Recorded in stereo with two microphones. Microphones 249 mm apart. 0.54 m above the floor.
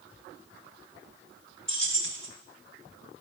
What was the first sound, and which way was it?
Keys jangling, 50° right (ahead or behind).